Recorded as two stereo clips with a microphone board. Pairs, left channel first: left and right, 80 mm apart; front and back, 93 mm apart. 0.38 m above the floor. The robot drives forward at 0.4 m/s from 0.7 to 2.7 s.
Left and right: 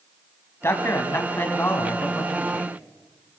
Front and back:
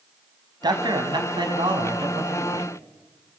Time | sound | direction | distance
0.6 | a man speaking | 145° left | 2.5 m